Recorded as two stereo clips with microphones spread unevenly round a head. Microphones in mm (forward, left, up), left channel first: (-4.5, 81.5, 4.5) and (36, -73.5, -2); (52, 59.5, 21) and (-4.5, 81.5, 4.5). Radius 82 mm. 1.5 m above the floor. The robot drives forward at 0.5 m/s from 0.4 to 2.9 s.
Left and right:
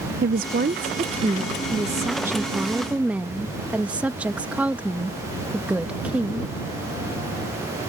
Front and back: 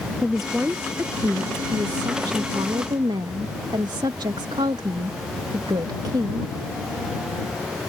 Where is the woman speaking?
100° right; by 6.5 s 160° right.